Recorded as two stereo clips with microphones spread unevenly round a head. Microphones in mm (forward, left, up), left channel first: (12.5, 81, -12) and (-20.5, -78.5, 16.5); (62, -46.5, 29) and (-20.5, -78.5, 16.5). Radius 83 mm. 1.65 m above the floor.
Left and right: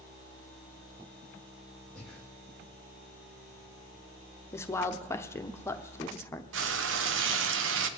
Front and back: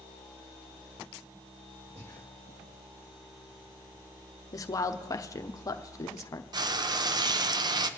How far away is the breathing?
About 2.0 m.